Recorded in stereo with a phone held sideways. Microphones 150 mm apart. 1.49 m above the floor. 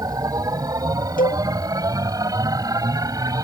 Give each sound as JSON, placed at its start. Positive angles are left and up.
{"t": 0.0, "sound": "a machine running", "side_deg": -25}
{"t": 1.2, "sound": "a cowbell", "side_deg": 75}